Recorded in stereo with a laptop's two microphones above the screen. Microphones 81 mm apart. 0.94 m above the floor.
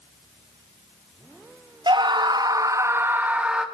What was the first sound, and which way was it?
A scream, 70° right (ahead or behind).